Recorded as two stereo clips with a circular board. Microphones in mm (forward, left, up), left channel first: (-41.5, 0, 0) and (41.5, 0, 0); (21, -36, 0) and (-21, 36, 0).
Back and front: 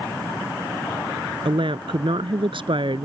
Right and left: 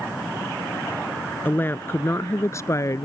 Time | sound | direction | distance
1.4 | a woman speaking | 5° left | ?